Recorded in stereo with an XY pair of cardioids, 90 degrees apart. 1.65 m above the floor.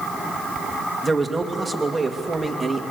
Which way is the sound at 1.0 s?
20° right.